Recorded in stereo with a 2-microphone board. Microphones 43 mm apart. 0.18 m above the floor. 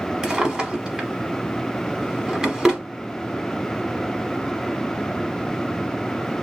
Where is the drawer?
15° right (ahead or behind), 0.8 m.